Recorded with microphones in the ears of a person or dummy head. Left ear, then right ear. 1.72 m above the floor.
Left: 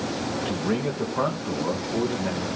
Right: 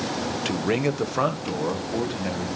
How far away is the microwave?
I don't hear a microwave.